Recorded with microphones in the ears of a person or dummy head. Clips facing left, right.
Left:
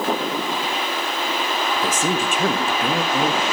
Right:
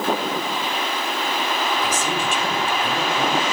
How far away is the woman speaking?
About 1.9 m.